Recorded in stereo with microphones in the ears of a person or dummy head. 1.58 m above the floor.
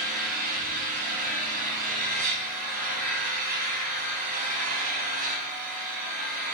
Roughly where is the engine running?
Right.